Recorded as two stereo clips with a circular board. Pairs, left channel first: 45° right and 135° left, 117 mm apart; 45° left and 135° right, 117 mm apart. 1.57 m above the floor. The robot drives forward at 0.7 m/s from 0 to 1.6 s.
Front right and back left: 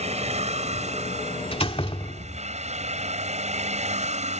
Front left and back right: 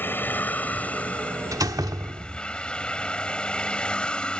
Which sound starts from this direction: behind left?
A vehicle, at 0.0 s.